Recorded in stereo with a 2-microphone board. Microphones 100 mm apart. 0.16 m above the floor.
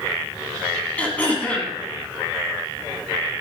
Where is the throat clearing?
15° left (ahead or behind), 1.7 m.